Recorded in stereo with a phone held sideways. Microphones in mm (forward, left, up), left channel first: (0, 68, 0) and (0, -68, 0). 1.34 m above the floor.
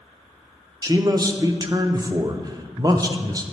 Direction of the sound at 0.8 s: 30° right (ahead or behind).